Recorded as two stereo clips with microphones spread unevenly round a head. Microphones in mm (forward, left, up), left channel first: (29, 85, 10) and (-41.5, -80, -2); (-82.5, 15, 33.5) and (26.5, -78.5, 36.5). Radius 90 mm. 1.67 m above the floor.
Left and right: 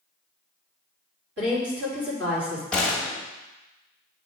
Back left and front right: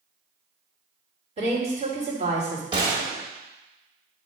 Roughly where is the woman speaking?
Right.